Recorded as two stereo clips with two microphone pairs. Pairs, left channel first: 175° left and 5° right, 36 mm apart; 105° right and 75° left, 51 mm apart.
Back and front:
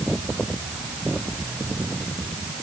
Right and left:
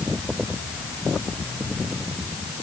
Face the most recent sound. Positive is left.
No sound to turn to.